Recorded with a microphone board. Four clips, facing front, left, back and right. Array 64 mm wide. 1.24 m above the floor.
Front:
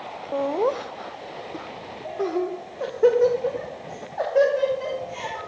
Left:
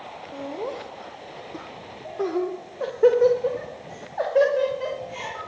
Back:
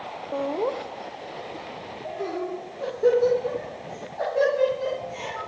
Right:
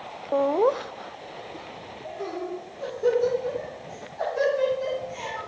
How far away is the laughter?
About 0.7 m.